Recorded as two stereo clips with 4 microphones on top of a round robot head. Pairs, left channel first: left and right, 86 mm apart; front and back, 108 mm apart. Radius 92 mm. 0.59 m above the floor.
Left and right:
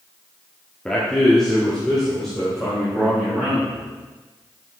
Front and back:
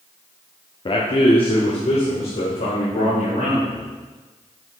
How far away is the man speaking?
About 1.2 m.